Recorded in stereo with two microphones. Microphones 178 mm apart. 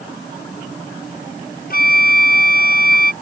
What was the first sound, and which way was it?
A flute, 55° left (ahead or behind).